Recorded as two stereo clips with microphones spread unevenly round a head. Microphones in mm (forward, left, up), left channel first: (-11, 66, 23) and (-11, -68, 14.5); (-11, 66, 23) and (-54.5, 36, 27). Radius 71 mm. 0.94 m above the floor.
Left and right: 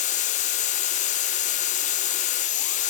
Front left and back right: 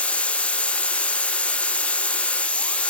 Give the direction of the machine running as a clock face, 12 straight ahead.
9 o'clock.